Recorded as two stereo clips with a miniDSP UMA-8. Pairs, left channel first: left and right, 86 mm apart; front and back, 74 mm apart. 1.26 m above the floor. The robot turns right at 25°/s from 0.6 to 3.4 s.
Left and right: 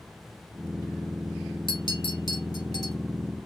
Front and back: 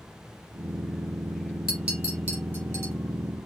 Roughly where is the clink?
Left.